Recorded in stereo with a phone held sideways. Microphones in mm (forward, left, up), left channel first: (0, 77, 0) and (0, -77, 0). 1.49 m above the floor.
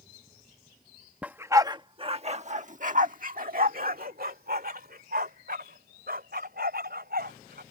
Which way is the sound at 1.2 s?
10° right (ahead or behind).